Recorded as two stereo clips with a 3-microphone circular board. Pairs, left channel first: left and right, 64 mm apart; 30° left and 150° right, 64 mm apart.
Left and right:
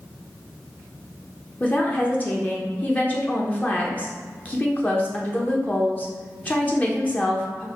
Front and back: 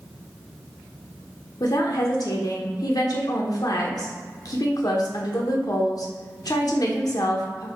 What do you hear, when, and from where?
1.6 s a woman speaking: 25° left, 0.6 m